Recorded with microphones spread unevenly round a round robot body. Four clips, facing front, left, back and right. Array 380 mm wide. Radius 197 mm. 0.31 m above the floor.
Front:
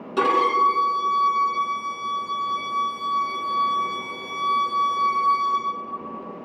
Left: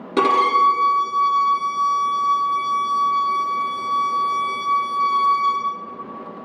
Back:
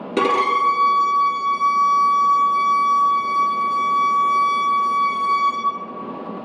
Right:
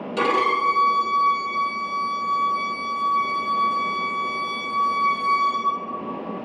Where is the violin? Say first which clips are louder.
Left 5 dB, back 1 dB; 140° left, 1.6 m.